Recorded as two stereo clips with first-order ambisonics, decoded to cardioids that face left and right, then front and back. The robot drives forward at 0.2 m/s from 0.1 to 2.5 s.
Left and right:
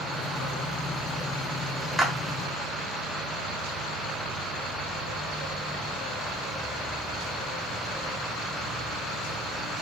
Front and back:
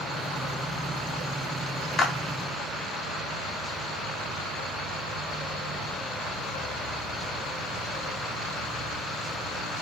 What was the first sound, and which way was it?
A clap, 15° right.